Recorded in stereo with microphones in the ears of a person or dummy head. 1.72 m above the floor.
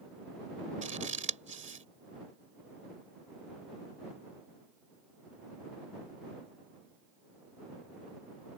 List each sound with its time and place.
0.8 s scissors: 40° right (ahead or behind)